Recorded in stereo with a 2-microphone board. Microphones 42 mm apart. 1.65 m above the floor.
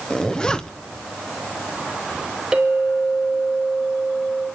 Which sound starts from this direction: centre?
A clink, at 2.5 s.